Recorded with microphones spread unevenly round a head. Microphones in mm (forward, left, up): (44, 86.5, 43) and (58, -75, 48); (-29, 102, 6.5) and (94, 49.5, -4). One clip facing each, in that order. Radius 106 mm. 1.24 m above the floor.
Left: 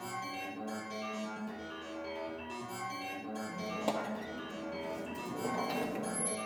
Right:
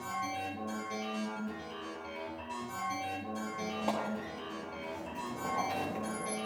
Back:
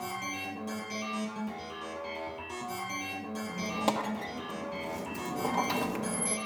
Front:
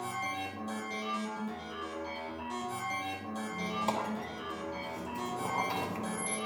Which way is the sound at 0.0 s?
175° right.